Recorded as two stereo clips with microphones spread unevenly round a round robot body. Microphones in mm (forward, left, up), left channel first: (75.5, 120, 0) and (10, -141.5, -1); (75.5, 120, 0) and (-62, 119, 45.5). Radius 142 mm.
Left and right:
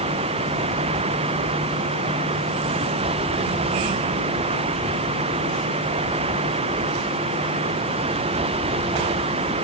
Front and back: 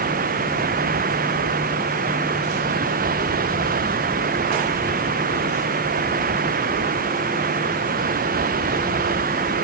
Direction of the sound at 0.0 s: 175° right.